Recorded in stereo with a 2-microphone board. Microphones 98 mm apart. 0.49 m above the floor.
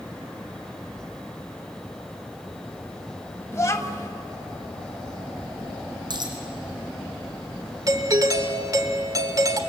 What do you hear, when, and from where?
3.5 s a child speaking: 30° left (ahead or behind), 1.8 m
6.1 s a dropped coin: 50° right (ahead or behind), 3.5 m
7.9 s a doorbell: 40° right (ahead or behind), 1.8 m